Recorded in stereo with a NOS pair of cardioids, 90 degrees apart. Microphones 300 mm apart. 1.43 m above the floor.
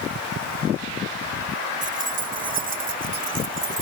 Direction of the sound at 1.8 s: 25° right.